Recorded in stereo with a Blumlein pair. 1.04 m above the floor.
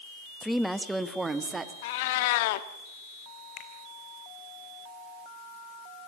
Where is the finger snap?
35° left, 3.5 m.